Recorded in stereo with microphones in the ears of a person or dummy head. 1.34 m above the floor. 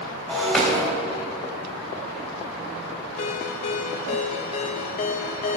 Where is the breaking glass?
Centre (ahead or behind), 2.5 m.